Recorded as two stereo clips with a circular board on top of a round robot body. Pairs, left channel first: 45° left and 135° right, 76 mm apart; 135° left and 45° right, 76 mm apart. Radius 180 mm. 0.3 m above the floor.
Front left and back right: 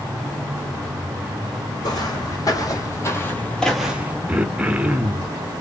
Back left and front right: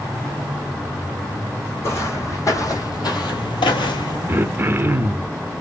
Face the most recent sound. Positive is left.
turn(degrees=-75)